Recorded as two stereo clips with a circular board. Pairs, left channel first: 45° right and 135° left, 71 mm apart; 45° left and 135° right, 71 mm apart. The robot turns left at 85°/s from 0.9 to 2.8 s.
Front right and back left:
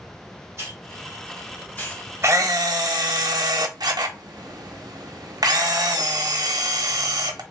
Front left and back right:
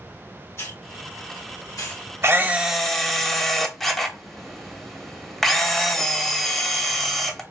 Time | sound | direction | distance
0.6 | a hiss | 90° left | 1.9 m
2.2 | a camera shutter | straight behind | 0.6 m